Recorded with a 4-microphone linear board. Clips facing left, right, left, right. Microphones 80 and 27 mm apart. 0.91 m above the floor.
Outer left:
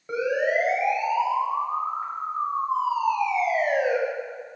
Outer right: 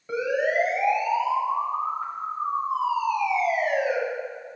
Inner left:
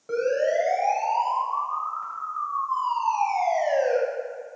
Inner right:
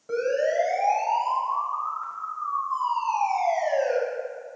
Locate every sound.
0.1 s a siren: 10° left (ahead or behind), 5.5 m; by 4.0 s 30° left (ahead or behind), 4.5 m